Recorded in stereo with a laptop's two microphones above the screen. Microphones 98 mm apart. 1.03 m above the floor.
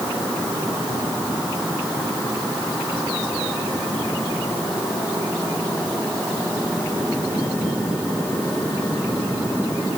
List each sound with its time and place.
Only background noise.